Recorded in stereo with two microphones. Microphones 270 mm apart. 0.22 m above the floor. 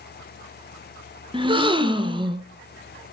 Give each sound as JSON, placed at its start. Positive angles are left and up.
{"t": 1.3, "sound": "a gasp", "side_deg": -20, "distance_m": 0.8}